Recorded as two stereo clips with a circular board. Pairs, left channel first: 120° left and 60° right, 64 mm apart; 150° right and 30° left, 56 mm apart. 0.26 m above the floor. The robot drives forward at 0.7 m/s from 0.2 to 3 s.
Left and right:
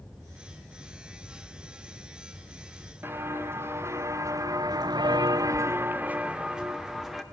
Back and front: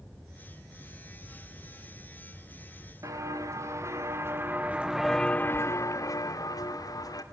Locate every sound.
3.0 s footsteps: straight ahead, 3 m; by 7.2 s 145° right, 2.5 m